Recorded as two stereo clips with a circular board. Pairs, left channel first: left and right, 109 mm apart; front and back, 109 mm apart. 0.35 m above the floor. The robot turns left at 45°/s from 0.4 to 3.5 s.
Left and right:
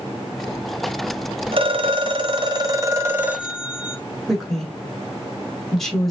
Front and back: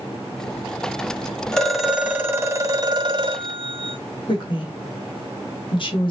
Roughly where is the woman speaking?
Ahead.